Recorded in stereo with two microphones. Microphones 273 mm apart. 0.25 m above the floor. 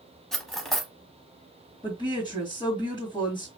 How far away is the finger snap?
No finger snap in this recording.